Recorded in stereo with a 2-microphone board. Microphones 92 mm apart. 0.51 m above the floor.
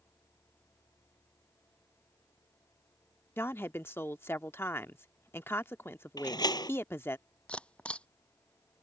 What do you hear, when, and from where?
3.4 s a woman speaking: 25° left (ahead or behind)
6.2 s a door slam: 50° left (ahead or behind)
7.5 s a camera shutter: 15° left (ahead or behind)